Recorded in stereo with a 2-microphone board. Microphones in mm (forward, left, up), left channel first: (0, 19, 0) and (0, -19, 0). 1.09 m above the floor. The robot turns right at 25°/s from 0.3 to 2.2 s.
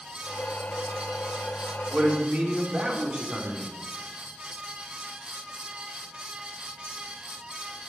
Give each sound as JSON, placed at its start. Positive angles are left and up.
{"t": 1.9, "sound": "a man speaking", "side_deg": -30, "distance_m": 4.0}